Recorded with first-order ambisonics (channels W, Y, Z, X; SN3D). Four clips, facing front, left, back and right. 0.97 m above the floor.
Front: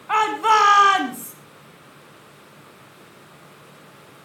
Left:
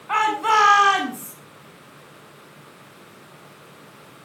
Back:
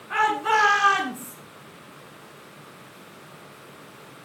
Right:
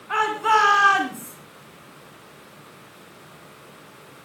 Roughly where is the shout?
Ahead left.